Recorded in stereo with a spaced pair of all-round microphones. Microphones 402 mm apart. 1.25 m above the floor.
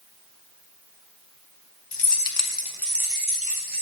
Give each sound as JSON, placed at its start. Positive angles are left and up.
{"t": 1.9, "sound": "keys jangling", "side_deg": 80, "distance_m": 0.7}